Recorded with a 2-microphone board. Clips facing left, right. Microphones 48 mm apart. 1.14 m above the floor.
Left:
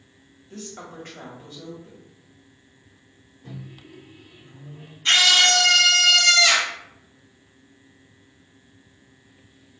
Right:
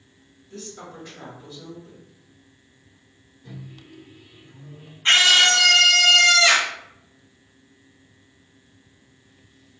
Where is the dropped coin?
I don't hear a dropped coin.